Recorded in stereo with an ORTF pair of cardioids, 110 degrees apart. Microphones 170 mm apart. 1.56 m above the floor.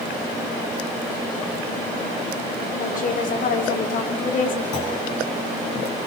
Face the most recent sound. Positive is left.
turn(degrees=45)